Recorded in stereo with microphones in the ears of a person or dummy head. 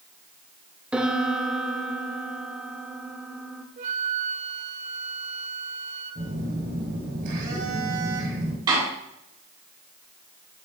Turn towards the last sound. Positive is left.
turn(degrees=-25)  # may be behind; listen again after turning